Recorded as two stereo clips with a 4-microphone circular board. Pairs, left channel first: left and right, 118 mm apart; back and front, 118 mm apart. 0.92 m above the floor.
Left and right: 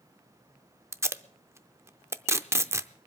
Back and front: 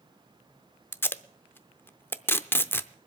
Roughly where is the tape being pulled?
Behind right.